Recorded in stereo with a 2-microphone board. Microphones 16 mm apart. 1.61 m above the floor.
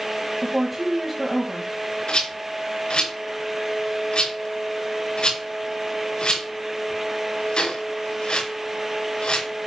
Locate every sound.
0.4 s a woman speaking: 5° right (ahead or behind), 2 m
2.1 s a rattle: 75° left (ahead or behind), 5 m